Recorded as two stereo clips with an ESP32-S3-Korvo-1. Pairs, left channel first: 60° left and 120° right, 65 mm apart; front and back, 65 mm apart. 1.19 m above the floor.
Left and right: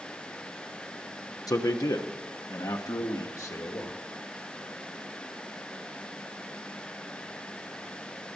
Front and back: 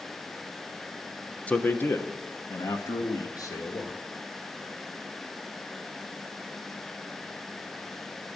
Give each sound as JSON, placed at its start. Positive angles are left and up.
{"t": 1.5, "sound": "a man speaking", "azimuth_deg": 65, "distance_m": 0.8}